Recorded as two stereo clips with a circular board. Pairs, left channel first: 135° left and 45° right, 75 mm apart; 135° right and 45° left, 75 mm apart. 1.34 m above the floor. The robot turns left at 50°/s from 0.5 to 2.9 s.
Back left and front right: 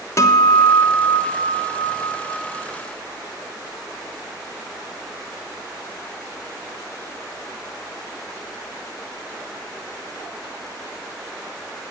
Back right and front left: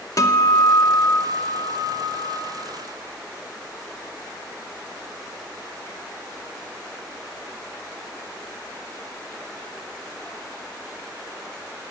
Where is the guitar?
175° right, 0.8 m; by 2.4 s 90° left, 0.8 m.